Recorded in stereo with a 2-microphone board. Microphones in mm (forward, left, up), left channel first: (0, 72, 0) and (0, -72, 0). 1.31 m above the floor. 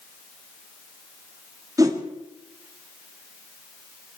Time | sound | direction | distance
1.8 | a whoosh | 25° right (ahead or behind) | 1.5 m